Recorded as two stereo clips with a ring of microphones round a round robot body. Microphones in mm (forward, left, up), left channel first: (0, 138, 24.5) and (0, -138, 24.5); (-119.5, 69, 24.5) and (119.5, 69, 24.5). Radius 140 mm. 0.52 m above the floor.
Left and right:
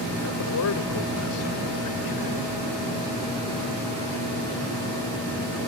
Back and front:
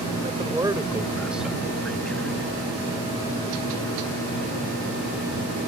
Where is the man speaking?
60° left; by 2.5 s 95° left.